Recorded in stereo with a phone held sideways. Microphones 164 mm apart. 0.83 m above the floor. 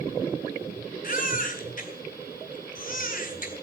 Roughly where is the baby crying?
Left.